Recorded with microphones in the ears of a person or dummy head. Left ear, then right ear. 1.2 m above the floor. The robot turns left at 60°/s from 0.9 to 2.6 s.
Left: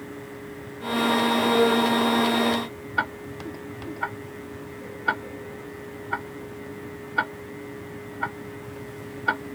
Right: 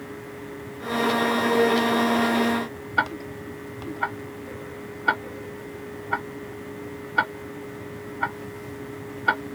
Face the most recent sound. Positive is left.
turn(degrees=-5)  # may be behind; listen again after turning